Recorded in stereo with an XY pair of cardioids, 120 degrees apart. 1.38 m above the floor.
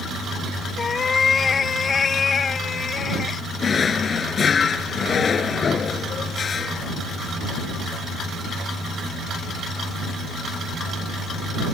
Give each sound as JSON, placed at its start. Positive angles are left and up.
{"t": 0.8, "sound": "a cat meowing", "azimuth_deg": 30}
{"t": 3.6, "sound": "a drawer", "azimuth_deg": 35}